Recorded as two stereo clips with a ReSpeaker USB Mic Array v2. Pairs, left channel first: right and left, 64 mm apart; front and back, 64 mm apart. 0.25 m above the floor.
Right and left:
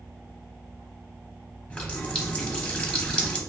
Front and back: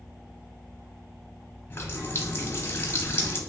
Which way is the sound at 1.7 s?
25° right.